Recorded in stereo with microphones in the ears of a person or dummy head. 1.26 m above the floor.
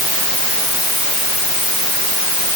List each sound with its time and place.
Only background noise.